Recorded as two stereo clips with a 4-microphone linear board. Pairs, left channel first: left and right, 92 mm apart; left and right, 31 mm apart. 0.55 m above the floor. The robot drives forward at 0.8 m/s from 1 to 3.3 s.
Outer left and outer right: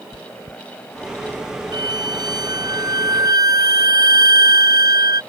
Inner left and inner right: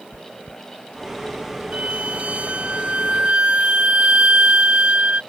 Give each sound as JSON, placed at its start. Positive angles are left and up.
{"t": 0.1, "sound": "chewing", "side_deg": -70}
{"t": 1.7, "sound": "a violin", "side_deg": -50}